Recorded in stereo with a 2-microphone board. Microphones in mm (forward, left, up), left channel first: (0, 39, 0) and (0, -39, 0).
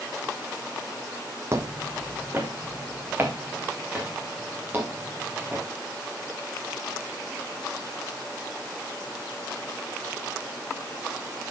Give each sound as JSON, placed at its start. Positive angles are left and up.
{"t": 1.5, "sound": "footsteps", "side_deg": -35, "distance_m": 1.1}